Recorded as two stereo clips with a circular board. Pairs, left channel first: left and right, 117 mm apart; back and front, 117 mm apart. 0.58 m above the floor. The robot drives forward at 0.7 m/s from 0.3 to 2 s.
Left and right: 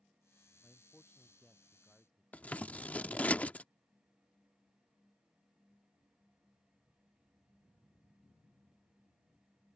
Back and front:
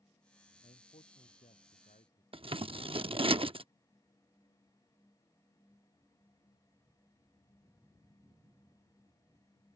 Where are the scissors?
15° left.